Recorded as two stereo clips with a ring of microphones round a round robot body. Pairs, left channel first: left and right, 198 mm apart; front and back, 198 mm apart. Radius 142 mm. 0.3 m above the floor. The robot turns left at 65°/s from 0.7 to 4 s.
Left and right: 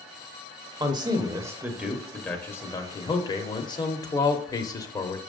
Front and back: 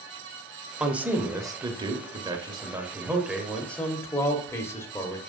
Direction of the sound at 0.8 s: 95° right.